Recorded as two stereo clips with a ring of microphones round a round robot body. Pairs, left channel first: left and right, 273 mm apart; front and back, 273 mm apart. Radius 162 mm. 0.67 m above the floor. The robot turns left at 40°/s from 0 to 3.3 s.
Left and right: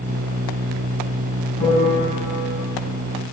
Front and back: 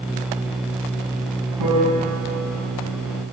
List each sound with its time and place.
1.6 s a piano: straight behind, 4 m; by 2.0 s 160° left, 4 m